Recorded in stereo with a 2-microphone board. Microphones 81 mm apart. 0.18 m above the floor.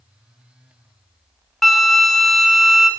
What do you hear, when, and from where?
1.6 s a flute: centre (ahead or behind), 0.5 m